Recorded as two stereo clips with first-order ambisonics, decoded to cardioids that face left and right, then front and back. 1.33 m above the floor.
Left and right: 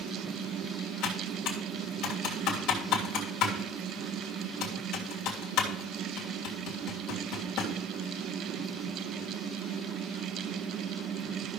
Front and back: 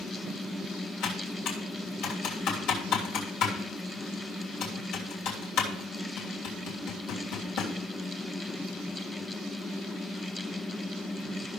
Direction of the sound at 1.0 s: 40° left.